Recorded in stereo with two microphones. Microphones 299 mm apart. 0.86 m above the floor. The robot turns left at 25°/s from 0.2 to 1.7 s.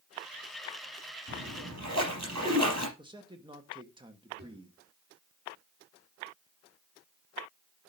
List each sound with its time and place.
1.3 s a splash: 70° right (ahead or behind), 4 m; by 2.9 s 60° right (ahead or behind), 4 m
3.0 s a man speaking: 15° right (ahead or behind), 1.3 m
4.4 s a drawer: 35° right (ahead or behind), 7 m